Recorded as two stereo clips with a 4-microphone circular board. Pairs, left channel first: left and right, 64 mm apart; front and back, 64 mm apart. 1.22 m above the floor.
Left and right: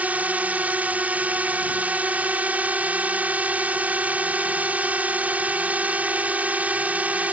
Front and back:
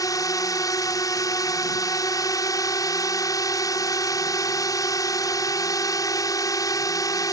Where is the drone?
25° right.